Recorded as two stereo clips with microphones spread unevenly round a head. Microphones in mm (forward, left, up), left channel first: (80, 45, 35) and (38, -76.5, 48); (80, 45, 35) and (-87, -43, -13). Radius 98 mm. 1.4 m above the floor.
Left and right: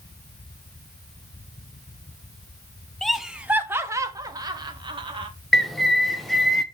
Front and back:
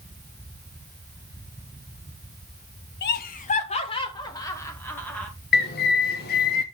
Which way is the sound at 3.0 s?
15° right.